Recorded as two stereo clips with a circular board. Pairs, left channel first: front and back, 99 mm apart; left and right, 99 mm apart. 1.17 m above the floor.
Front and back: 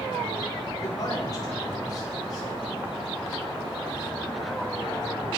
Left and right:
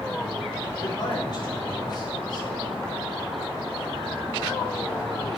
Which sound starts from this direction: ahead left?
A man speaking, at 0.8 s.